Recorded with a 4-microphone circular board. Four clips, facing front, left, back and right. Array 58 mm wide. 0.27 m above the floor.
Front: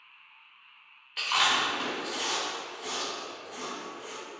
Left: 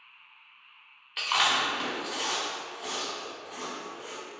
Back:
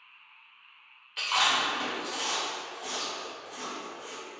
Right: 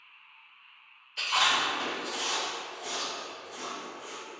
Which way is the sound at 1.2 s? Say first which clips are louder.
Left 1 dB, even; 90° left.